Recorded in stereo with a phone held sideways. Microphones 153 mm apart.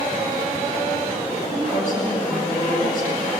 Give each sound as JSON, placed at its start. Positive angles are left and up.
{"t": 1.4, "sound": "a woman speaking", "side_deg": 60, "distance_m": 7.5}